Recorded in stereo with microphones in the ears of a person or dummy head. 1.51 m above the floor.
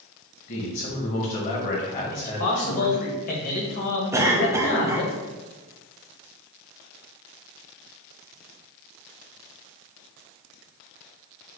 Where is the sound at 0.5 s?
40° left (ahead or behind), 1.2 m.